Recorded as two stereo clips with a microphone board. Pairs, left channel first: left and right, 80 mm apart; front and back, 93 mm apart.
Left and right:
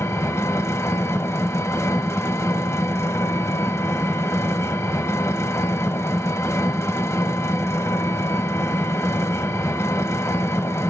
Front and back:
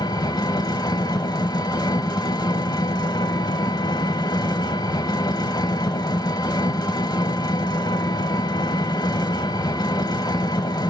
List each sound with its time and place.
0.0 s an engine running: 35° left, 1.0 m